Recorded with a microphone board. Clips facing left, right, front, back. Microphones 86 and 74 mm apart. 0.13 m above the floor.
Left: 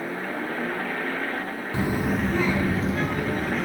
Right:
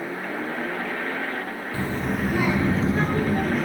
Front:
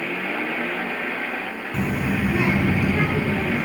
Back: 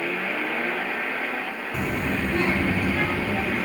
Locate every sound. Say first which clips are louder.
1.7 s a child speaking: left 2 dB, front 3 dB; 95° left, 0.7 m; by 3.7 s 65° right, 1.2 m